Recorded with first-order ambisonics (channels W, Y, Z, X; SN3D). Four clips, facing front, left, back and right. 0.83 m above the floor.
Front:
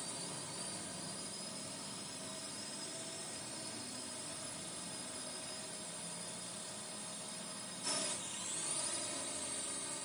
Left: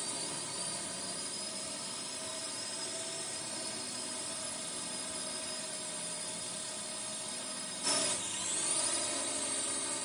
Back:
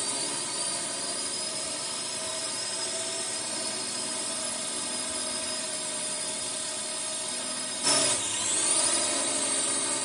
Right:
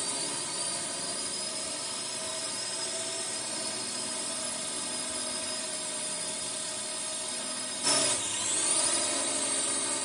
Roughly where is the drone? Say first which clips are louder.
Right 5 dB, back 13 dB; behind right.